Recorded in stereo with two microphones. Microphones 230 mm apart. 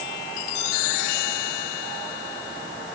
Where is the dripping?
I don't hear dripping.